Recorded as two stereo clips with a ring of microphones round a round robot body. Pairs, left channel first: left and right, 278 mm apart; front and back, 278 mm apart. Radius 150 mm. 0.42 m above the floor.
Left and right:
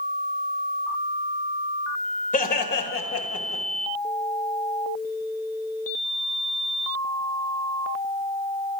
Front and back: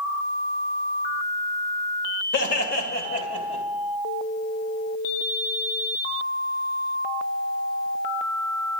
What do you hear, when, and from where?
2.3 s laughter: 40° left, 2 m; by 3.6 s 70° left, 3 m